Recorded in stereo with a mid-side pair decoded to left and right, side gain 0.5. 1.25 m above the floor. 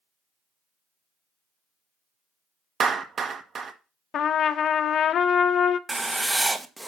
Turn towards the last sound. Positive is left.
turn(degrees=-15)